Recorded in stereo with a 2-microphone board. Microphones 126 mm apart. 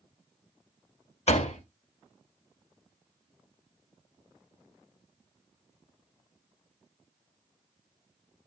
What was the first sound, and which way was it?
A door slam, 60° left (ahead or behind).